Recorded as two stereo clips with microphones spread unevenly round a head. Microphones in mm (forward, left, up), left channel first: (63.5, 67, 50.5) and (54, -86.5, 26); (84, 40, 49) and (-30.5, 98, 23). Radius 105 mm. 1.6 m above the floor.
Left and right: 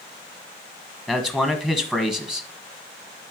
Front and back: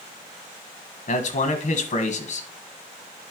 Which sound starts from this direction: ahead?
A man speaking, at 1.1 s.